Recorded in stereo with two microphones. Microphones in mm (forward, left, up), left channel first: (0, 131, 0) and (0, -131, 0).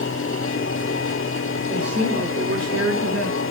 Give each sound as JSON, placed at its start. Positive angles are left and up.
{"t": 1.7, "sound": "a man speaking", "side_deg": -35, "distance_m": 2.0}